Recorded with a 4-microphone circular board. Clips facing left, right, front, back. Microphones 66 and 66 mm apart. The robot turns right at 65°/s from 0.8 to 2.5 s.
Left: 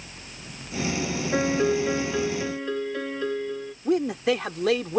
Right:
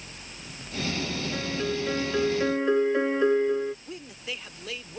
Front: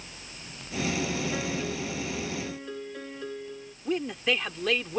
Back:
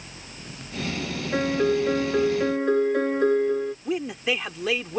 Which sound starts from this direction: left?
A man speaking, at 3.9 s.